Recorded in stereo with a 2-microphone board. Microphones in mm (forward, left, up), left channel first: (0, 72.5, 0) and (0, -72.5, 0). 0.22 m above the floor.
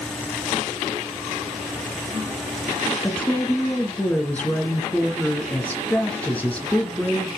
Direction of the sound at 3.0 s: 10° left (ahead or behind).